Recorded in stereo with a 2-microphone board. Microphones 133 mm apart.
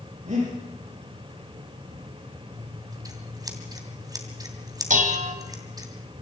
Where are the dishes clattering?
75° right (ahead or behind), 1.9 m.